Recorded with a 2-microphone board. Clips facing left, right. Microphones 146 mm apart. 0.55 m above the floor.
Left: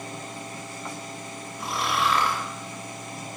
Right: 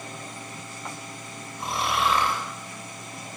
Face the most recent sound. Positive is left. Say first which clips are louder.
# right 1 dB
turn(degrees=-25)  # may be behind; listen again after turning